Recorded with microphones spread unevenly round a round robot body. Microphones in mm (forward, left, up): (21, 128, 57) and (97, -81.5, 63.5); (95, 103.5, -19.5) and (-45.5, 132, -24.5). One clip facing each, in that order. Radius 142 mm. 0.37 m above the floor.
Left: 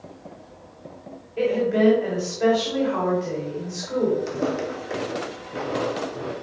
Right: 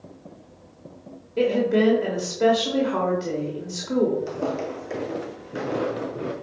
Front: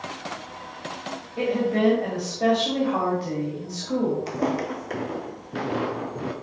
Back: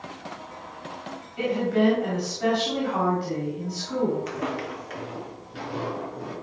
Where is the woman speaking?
60° right, 2.0 m.